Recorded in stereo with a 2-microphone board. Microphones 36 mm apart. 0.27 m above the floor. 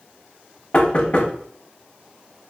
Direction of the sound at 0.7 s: 35° left (ahead or behind).